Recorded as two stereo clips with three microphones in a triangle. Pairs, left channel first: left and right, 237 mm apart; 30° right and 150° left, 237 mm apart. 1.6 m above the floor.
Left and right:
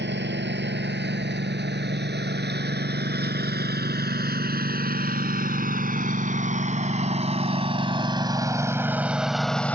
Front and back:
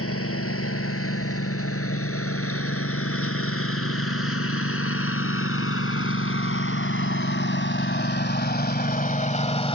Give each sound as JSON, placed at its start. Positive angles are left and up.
{"t": 0.0, "sound": "a lawn mower", "azimuth_deg": -50}